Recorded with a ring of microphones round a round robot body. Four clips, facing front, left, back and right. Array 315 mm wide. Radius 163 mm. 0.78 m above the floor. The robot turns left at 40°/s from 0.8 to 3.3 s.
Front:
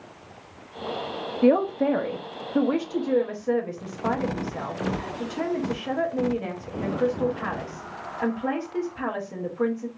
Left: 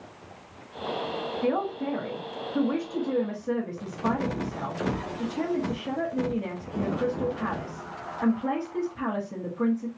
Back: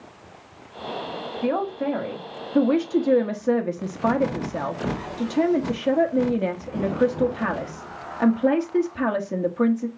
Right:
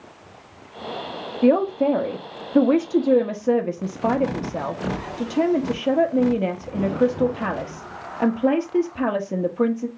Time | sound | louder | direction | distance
1.4 | a man speaking | right 11 dB, front 5 dB | 45° right | 0.9 m